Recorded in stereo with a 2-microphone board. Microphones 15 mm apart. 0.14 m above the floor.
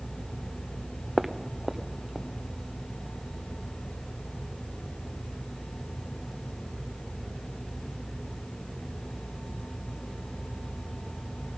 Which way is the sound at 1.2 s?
10° right (ahead or behind).